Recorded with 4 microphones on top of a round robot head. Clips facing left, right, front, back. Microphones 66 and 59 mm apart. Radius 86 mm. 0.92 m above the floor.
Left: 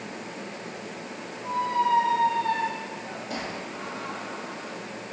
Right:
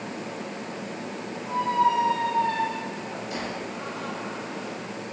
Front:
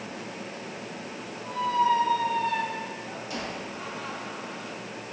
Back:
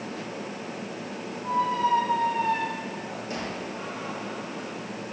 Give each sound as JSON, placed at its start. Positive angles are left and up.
{"t": 1.4, "sound": "a squeak", "azimuth_deg": 135, "distance_m": 6.0}